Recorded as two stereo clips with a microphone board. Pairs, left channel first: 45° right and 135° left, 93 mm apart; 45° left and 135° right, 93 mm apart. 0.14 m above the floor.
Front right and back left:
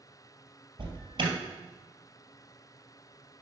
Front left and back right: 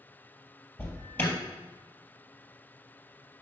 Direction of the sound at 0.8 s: 110° left.